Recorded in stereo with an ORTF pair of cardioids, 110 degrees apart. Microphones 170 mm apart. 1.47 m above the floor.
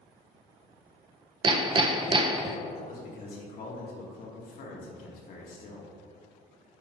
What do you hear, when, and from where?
1.4 s hammering: 30° right, 0.6 m
2.8 s a man speaking: 55° left, 2 m